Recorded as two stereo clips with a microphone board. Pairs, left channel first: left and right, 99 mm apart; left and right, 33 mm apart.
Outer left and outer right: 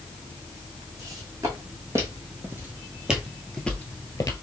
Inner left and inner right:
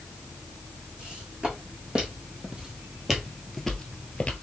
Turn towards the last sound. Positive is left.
turn(degrees=40)  # may be behind; listen again after turning